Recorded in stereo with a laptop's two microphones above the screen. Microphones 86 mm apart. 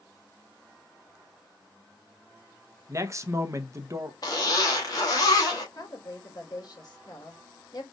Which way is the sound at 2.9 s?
35° right (ahead or behind).